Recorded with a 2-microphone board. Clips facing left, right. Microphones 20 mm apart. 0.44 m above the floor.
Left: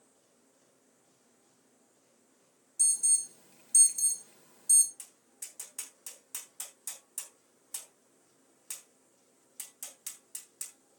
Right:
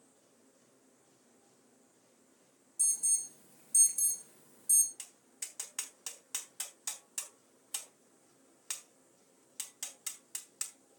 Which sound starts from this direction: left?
An alarm, at 2.8 s.